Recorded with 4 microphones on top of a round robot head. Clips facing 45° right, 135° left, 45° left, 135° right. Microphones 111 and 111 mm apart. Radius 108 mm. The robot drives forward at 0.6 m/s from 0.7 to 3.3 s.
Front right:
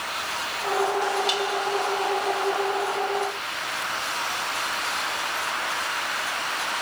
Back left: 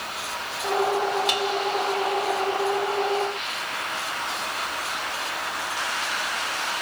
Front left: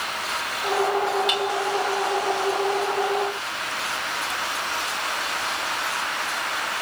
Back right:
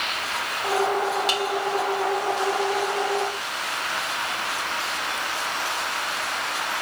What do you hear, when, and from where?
1.3 s dishes clattering: 170° left, 2 m